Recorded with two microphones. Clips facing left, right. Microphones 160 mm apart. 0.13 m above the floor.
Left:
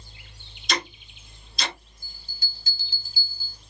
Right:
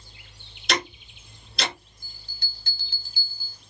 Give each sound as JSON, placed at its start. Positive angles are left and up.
{"t": 0.7, "sound": "ticking", "side_deg": -70, "distance_m": 0.9}
{"t": 2.0, "sound": "a bell", "side_deg": -60, "distance_m": 0.6}